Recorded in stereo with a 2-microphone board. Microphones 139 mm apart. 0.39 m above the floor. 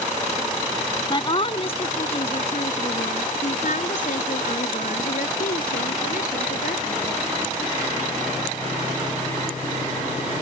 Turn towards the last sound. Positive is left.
turn(degrees=80)